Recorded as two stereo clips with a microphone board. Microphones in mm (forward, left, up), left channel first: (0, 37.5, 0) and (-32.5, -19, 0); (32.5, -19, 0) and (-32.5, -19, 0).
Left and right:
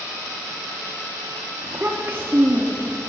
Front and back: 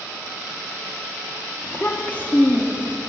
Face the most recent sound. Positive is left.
turn(degrees=-60)